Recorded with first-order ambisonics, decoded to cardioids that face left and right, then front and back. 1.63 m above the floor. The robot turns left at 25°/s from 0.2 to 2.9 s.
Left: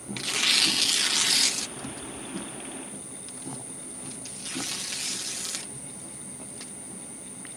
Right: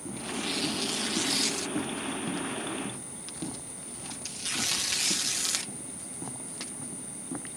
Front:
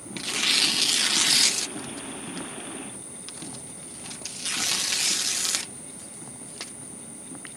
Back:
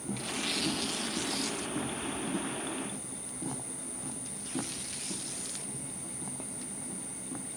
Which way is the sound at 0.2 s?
55° left.